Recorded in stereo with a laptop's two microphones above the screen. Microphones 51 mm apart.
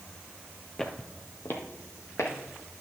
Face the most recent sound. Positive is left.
turn(degrees=70)  # may be behind; listen again after turning